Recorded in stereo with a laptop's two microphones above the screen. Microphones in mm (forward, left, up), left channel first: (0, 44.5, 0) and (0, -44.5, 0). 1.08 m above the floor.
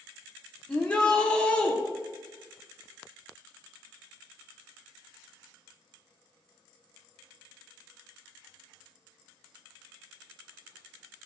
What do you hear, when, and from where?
0.7 s a shout: 10° left (ahead or behind), 0.7 m